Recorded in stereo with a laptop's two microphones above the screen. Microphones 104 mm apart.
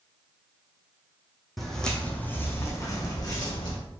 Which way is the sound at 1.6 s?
Centre (ahead or behind).